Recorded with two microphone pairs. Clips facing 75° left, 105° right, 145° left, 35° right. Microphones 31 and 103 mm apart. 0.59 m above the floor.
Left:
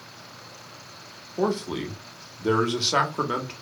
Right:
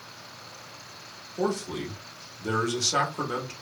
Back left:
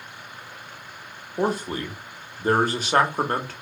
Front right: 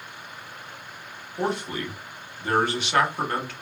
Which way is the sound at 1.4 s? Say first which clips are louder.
Left 3 dB, back left 3 dB; 120° left.